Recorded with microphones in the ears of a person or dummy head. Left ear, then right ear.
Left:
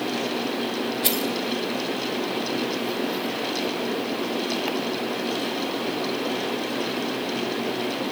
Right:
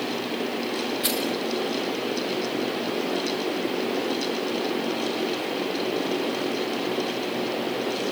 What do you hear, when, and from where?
1.0 s keys jangling: 30° right (ahead or behind), 2 m